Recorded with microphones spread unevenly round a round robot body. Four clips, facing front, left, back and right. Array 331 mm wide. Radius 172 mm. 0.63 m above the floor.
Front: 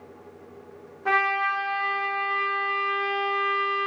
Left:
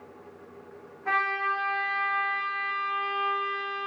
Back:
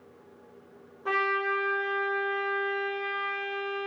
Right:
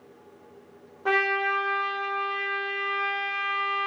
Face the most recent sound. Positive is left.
turn(degrees=-70)